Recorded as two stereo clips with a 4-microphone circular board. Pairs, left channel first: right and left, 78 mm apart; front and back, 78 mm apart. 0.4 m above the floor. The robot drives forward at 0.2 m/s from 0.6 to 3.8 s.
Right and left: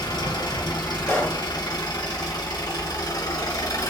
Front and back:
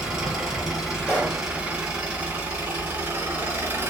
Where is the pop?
55° right, 1.9 m.